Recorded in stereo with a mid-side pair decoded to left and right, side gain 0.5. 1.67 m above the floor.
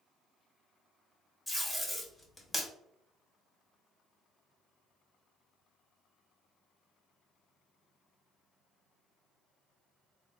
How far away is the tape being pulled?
About 1.1 m.